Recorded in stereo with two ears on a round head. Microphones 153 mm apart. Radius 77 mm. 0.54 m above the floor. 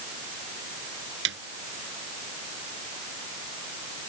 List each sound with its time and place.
1.2 s a snare drum: 80° right